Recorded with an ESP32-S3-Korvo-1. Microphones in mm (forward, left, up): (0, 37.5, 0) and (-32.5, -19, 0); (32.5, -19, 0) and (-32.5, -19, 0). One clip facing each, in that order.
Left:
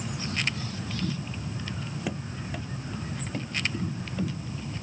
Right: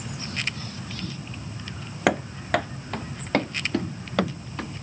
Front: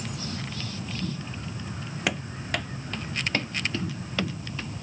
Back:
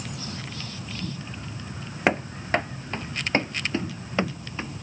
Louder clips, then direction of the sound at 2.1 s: Right 16 dB, back 7 dB; 125° right.